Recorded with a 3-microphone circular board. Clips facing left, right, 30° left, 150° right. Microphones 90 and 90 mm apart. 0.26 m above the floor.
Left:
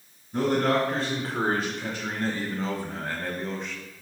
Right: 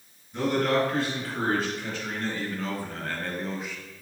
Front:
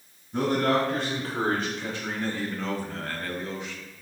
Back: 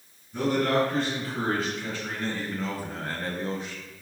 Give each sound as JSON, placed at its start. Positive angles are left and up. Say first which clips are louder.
{"t": 0.3, "sound": "a man speaking", "louder": "left 1 dB, even", "azimuth_deg": 70, "distance_m": 2.5}